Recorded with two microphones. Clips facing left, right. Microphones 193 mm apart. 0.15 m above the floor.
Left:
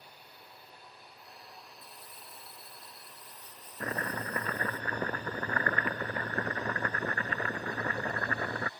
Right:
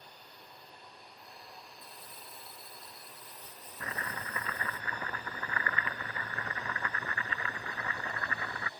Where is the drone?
5° left (ahead or behind); by 8.8 s 20° right (ahead or behind).